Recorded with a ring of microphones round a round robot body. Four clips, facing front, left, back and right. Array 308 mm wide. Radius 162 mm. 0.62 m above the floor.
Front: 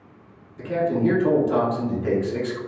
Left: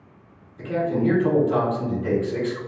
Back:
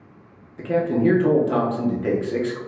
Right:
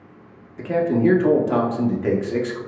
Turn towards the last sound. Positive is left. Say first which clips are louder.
# right 4 dB, back 2 dB
turn(degrees=-115)